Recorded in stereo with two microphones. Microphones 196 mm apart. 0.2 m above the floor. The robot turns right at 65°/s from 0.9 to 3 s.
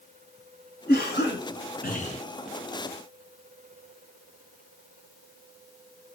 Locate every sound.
0.9 s a cough: 65° left, 3 m; by 2.2 s 150° left, 3 m